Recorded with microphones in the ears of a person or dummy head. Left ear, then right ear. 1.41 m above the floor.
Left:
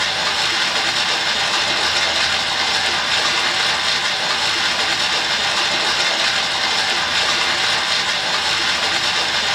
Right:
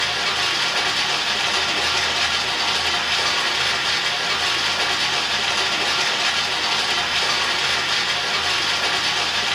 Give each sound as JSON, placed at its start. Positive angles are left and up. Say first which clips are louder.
{"t": 0.0, "sound": "running water", "louder": "left 2 dB", "side_deg": 45, "distance_m": 1.6}